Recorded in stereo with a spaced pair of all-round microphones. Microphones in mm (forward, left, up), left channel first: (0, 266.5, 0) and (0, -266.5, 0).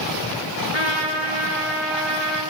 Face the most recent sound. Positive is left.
turn(degrees=55)  # may be behind; listen again after turning